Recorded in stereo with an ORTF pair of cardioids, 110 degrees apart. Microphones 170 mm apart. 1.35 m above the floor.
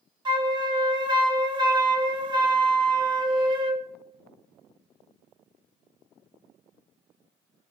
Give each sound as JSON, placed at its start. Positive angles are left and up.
{"t": 0.2, "sound": "a flute", "azimuth_deg": -25, "distance_m": 1.3}